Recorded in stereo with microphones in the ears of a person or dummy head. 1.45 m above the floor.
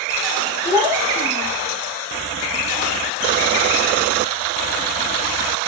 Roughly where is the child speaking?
Left.